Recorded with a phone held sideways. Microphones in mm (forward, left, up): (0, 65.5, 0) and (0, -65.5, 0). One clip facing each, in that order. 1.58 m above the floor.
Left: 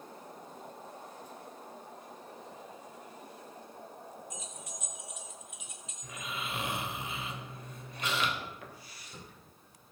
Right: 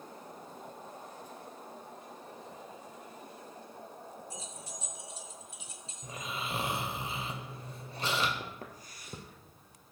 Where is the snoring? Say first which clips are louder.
Right 1 dB; 35° right (ahead or behind), 1.6 m.